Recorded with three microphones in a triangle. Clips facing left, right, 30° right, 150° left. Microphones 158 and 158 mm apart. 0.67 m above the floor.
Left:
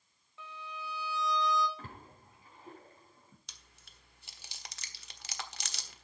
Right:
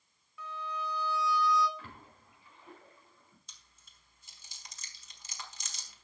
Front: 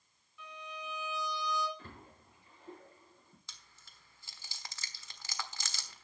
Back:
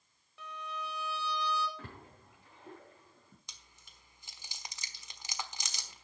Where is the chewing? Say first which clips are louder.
Left 4 dB, even; 80° left, 1.1 m.